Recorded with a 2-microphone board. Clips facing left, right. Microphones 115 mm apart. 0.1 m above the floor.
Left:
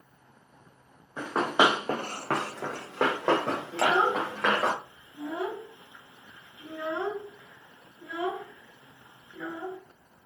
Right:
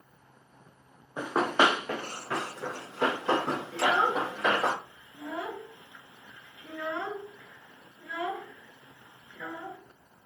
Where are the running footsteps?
15° right (ahead or behind), 0.8 m; by 4.7 s 75° left (ahead or behind), 3 m.